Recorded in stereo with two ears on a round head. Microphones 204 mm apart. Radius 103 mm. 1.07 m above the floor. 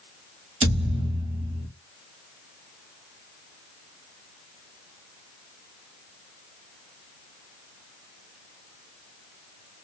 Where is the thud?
25° right (ahead or behind), 1.4 m.